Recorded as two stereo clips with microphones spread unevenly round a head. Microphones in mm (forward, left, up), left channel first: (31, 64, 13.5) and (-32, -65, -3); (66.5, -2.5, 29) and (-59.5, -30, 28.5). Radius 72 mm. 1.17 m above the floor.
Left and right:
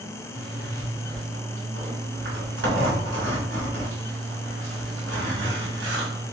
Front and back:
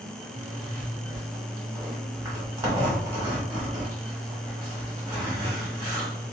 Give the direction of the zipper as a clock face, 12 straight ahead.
3 o'clock.